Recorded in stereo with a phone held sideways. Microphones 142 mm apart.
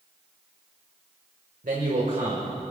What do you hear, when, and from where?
1.6 s a man speaking: 70° right (ahead or behind), 1.6 m